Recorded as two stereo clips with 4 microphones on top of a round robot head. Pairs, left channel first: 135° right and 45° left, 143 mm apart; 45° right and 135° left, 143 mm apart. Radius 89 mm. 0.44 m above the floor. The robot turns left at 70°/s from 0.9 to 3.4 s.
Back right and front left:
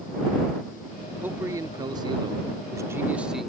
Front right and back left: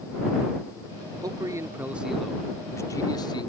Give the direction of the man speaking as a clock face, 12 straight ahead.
8 o'clock.